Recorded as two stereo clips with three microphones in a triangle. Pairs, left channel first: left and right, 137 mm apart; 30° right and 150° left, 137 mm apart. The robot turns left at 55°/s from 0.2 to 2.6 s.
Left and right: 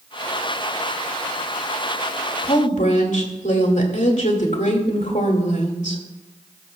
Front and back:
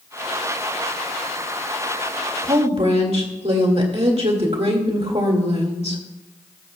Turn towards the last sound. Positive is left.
turn(degrees=110)